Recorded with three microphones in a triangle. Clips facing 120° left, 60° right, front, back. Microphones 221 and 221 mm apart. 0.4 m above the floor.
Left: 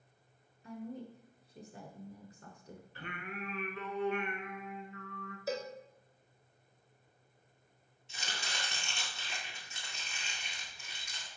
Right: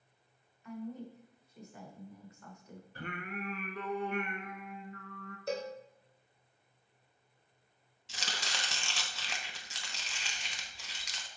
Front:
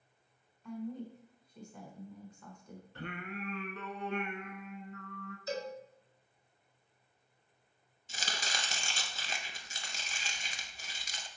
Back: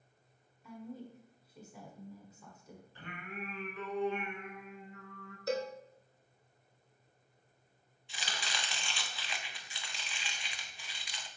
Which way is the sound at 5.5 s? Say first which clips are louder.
Right 1 dB, back 4 dB; 155° right.